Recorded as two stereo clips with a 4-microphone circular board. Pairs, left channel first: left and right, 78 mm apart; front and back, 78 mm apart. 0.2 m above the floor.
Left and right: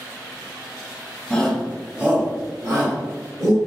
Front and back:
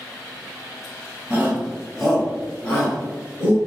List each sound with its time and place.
1.3 s a shout: 150° left, 1.1 m; by 3.6 s 55° right, 2 m